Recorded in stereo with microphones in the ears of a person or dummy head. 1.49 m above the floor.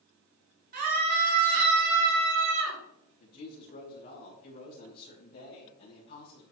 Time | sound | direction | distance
0.7 | a scream | 55° right (ahead or behind) | 4.5 m
3.2 | a woman speaking | 55° left (ahead or behind) | 2.5 m